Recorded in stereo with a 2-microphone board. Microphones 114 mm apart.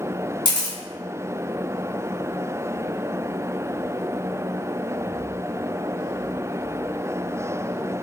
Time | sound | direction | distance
0.5 | a camera shutter | 40° left (ahead or behind) | 1.6 m